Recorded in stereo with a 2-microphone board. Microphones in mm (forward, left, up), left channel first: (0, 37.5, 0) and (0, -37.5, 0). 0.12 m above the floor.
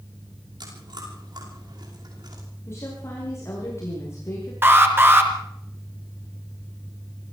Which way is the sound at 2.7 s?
35° left (ahead or behind).